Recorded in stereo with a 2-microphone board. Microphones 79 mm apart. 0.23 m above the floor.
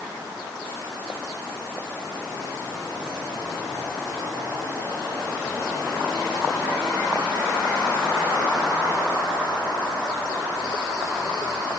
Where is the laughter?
No laughter in this recording.